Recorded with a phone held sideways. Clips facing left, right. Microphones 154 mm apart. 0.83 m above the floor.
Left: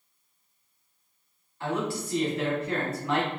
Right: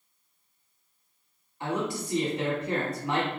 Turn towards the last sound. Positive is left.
turn(degrees=-20)  # may be behind; listen again after turning